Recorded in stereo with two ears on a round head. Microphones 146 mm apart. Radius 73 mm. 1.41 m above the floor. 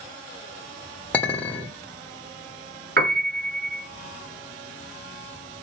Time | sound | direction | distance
1.1 | a clink | 10° left (ahead or behind) | 1.3 m
3.0 | a piano | 60° right (ahead or behind) | 1.9 m